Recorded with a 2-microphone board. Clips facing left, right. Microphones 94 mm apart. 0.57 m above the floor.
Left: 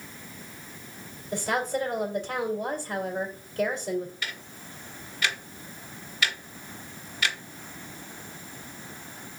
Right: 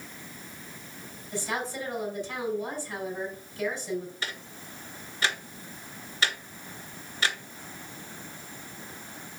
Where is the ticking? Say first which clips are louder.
Even; 30° right (ahead or behind), 1.1 m.